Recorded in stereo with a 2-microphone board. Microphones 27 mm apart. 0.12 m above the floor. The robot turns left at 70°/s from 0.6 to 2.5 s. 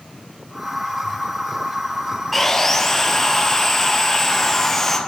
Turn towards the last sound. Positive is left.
turn(degrees=15)  # may be behind; listen again after turning